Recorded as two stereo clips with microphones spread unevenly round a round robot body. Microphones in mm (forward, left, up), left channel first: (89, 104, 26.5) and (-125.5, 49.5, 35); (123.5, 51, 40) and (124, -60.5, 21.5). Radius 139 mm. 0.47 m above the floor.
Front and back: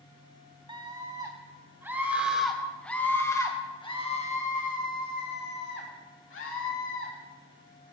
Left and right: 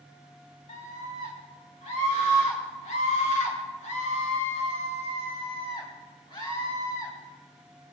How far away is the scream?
About 4 m.